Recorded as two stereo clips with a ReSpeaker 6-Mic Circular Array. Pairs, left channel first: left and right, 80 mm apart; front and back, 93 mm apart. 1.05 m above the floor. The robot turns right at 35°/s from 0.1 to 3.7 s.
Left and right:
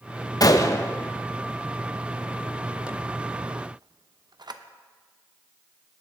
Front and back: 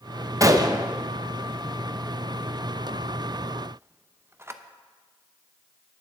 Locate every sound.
0.4 s a gunshot: 125° left, 0.6 m; by 4.6 s 115° right, 0.6 m